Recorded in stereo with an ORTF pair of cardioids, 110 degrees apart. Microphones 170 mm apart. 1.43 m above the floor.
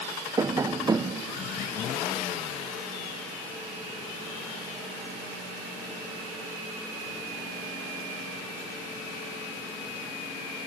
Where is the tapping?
20° right, 0.6 m.